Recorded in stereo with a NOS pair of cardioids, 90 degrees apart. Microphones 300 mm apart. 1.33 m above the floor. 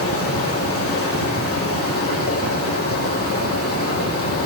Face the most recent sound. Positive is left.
turn(degrees=50)